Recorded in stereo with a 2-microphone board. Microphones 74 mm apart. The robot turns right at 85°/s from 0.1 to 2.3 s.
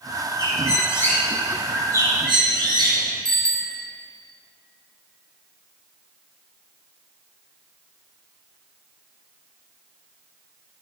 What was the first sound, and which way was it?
A bird, 95° left.